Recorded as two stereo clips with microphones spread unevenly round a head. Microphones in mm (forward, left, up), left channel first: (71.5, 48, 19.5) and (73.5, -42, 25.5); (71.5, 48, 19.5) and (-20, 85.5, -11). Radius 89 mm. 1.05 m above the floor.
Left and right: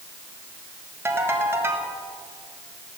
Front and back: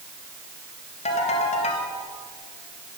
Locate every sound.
1.1 s a ringtone: 25° right, 4.5 m